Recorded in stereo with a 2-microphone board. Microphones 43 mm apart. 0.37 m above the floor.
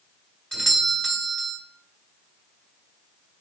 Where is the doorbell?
10° left (ahead or behind), 1.7 m.